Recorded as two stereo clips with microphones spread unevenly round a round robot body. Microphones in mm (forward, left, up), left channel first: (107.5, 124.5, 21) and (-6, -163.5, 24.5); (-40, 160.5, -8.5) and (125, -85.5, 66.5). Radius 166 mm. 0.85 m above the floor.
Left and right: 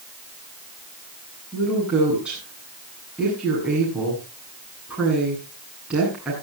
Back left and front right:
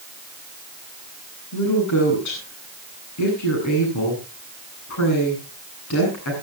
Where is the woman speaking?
160° left, 8.5 m.